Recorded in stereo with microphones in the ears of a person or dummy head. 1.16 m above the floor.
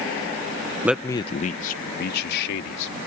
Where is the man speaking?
10° right (ahead or behind); by 3.0 s 70° left (ahead or behind).